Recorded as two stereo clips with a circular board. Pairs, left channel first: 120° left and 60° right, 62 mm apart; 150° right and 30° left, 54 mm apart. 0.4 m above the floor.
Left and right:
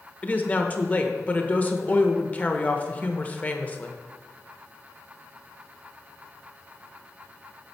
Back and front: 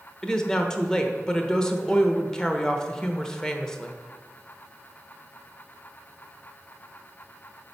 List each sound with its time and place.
0.2 s a woman speaking: 145° left, 0.8 m